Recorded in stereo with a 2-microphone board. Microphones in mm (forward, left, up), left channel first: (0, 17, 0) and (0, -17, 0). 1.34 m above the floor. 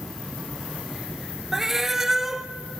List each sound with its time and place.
1.5 s a cat meowing: 15° right (ahead or behind), 0.7 m